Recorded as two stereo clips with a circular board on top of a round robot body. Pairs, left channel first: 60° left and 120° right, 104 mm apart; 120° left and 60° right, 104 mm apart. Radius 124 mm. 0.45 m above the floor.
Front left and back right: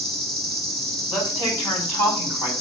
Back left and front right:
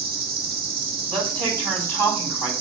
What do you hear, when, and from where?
0.0 s an insect: 30° right, 5 m
1.1 s a woman speaking: 5° right, 4.5 m